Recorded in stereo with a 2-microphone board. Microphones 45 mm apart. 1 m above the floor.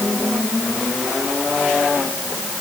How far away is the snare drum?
I don't hear a snare drum.